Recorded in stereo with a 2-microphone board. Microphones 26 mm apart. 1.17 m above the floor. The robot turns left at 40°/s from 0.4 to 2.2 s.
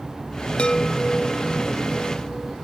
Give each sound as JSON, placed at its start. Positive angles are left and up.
{"t": 0.6, "sound": "a chime", "azimuth_deg": 60, "distance_m": 0.6}